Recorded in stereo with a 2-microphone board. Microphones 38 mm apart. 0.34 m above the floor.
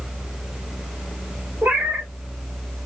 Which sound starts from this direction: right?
A cat meowing, at 1.6 s.